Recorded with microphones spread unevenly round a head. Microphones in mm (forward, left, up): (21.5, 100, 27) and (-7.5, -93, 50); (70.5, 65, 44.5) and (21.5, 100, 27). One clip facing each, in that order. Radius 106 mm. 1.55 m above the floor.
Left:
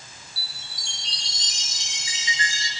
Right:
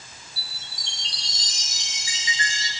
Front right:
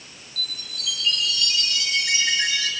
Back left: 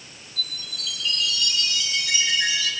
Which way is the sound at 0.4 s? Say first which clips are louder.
Even, even; 30° right.